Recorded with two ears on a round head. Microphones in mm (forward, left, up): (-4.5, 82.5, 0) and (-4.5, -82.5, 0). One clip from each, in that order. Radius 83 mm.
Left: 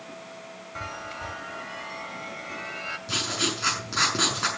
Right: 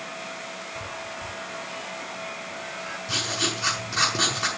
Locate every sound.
0.8 s a chime: 55° left (ahead or behind), 1.9 m
3.1 s writing: 5° left (ahead or behind), 5.5 m